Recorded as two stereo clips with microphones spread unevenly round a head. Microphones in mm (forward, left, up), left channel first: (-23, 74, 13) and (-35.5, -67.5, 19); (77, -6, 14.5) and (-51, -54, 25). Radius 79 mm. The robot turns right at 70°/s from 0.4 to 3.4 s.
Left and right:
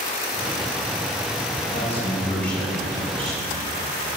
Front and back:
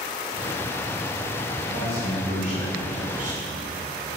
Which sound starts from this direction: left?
A man speaking, at 1.6 s.